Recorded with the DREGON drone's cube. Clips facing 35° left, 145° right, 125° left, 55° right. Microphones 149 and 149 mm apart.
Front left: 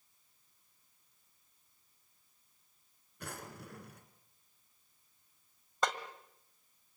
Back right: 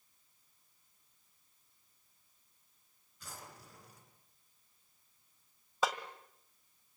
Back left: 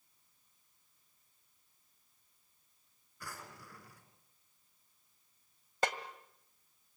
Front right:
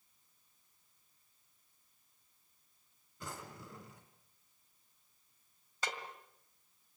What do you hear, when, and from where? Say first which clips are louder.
3.2 s a drawer: front left 6 dB, front right 3 dB; 10° left, 3 m
5.8 s a snare drum: even, back left 7 dB; 130° left, 1.8 m